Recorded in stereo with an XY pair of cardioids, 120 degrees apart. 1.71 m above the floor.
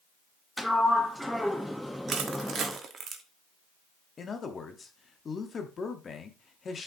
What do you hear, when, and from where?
0.6 s a sliding door: straight ahead, 0.9 m
2.1 s crushing: 45° right, 1.2 m
4.2 s a man speaking: 35° left, 1.1 m